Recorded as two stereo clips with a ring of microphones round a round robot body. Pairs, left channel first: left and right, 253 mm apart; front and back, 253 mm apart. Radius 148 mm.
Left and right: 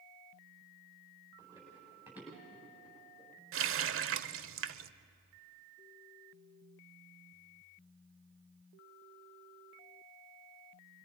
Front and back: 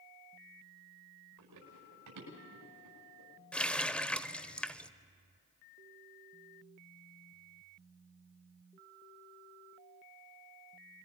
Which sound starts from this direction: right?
A running tap, at 3.5 s.